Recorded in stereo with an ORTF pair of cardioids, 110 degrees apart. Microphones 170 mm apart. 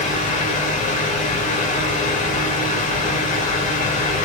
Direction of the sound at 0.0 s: 45° left.